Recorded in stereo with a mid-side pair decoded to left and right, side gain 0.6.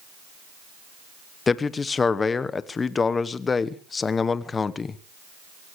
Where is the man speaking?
25° left, 1.2 m.